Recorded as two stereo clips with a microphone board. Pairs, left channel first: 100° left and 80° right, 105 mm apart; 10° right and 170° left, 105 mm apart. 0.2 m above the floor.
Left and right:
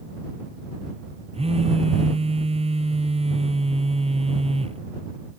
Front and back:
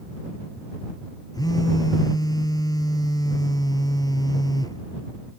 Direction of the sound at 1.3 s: 65° right.